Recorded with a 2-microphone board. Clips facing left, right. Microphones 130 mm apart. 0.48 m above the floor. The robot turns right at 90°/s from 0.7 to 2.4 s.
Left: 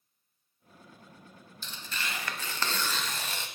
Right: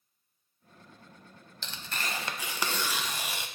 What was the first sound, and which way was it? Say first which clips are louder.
Tearing paper: right 1 dB; 85° right.